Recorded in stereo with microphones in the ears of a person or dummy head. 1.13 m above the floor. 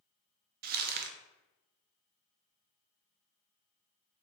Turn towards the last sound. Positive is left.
turn(degrees=-45)  # may be behind; listen again after turning